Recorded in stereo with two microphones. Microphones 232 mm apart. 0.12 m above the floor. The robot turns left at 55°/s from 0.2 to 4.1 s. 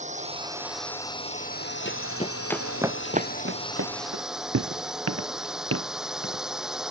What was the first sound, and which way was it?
A drone, 150° right.